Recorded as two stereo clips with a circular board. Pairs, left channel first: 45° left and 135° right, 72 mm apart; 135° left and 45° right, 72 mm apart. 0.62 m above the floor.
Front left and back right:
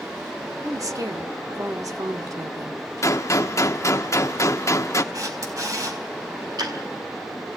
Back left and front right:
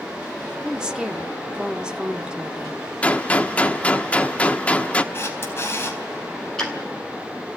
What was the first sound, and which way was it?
A woman speaking, 120° right.